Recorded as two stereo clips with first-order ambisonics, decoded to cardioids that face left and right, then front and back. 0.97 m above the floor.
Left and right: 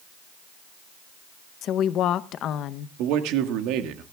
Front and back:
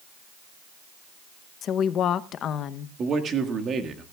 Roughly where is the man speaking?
Behind right.